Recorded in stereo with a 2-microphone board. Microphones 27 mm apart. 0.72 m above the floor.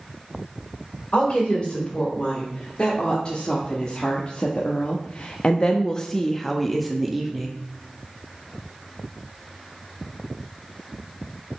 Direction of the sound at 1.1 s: 35° left (ahead or behind).